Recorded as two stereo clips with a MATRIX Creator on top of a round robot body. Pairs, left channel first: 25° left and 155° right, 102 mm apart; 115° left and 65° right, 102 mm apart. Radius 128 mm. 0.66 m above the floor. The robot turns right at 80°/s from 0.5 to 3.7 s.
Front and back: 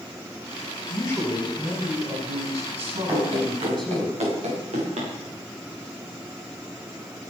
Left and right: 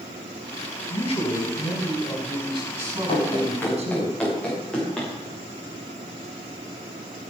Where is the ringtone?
I don't hear a ringtone.